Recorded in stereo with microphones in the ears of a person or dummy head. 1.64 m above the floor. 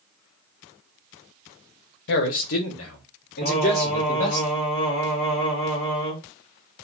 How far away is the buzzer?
I don't hear a buzzer.